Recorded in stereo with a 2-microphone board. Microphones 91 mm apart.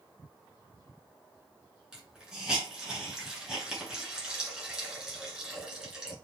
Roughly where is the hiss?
Centre.